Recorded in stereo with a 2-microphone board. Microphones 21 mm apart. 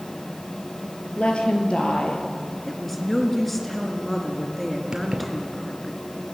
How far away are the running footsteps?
No running footsteps in this recording.